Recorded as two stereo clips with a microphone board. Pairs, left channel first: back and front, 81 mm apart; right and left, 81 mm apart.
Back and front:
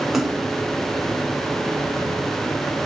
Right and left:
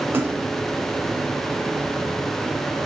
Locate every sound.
0.1 s a splash: 85° left, 1.6 m